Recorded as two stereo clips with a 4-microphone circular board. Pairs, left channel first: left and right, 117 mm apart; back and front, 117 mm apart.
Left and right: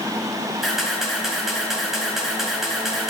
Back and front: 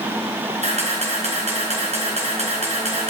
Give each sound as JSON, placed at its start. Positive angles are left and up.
{"t": 0.6, "sound": "a camera shutter", "azimuth_deg": 0, "distance_m": 4.5}